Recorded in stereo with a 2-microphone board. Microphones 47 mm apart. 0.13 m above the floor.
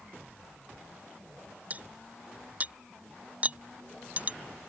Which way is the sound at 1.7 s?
30° right (ahead or behind).